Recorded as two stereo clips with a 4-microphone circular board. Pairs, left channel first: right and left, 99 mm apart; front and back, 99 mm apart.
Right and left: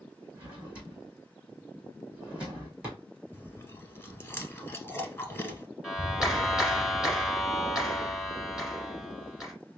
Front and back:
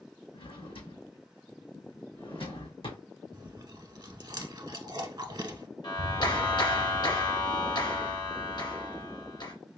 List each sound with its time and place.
0.3 s a drawer: 15° left, 2.5 m
3.3 s chewing: 150° right, 0.9 m
5.8 s a clap: 5° left, 1.9 m